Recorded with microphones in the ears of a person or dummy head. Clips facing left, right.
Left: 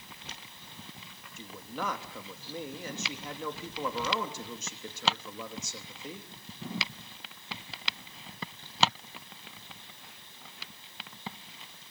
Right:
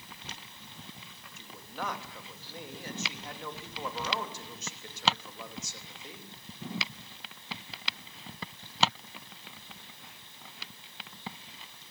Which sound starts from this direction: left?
A man speaking, at 1.4 s.